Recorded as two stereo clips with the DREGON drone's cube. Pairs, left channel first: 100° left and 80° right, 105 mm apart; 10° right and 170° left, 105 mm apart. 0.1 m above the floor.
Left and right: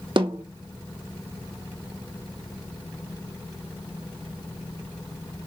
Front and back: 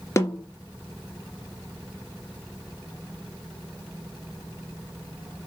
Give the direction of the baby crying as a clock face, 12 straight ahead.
No baby crying in this recording.